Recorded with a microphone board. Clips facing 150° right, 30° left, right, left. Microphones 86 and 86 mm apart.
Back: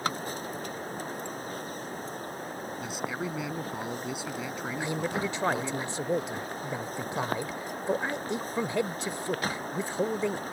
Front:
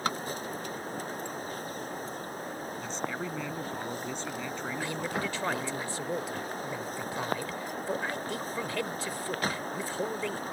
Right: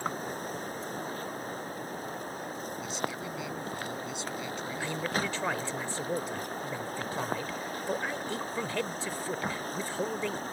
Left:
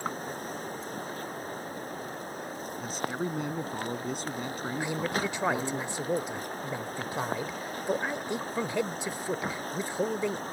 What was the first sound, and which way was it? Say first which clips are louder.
A man speaking: back 2 dB, left 4 dB; 130° left.